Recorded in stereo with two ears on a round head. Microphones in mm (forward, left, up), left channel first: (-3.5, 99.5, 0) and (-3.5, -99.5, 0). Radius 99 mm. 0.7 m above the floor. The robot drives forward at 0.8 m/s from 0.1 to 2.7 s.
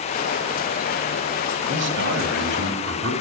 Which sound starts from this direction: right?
A man speaking, at 1.7 s.